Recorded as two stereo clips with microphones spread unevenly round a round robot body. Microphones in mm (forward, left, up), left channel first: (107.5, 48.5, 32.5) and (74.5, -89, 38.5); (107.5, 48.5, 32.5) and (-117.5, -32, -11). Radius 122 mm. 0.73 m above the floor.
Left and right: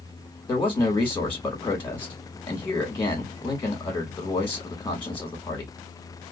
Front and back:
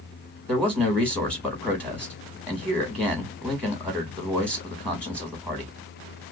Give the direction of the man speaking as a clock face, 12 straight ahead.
7 o'clock.